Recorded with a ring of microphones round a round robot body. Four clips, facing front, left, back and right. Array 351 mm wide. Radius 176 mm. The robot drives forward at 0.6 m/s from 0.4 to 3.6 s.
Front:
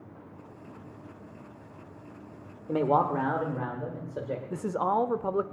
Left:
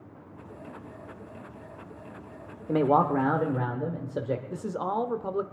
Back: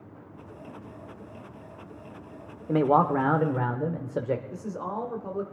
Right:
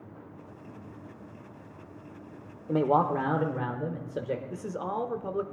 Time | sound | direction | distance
2.7 | a man speaking | 135° left | 1.1 m
4.5 | a man speaking | 15° left | 1.0 m